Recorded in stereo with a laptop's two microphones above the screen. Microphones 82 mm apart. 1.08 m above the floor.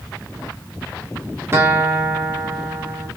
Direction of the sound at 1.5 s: 30° right (ahead or behind).